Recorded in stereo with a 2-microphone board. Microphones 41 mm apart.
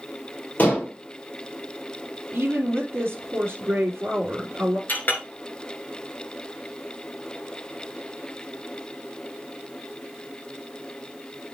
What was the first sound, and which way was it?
Dishes clattering, 45° left (ahead or behind).